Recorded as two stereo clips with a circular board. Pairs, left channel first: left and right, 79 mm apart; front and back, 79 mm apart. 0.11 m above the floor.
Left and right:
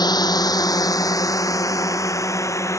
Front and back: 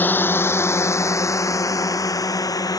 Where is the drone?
65° left; by 2.8 s 40° left.